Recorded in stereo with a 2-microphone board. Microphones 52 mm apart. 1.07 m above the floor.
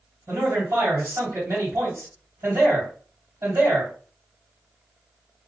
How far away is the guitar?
I don't hear a guitar.